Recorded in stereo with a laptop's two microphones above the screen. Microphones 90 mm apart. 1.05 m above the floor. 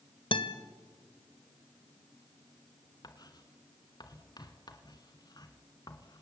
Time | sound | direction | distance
0.3 | a guitar | 70° left (ahead or behind) | 1.5 m
3.0 | writing | 50° left (ahead or behind) | 2 m